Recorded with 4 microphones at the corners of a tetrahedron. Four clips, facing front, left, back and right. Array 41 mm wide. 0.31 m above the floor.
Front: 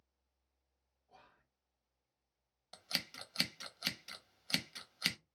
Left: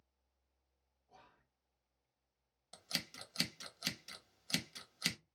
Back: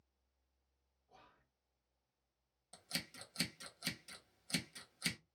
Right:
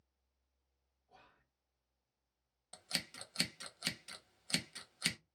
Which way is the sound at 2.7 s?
15° right.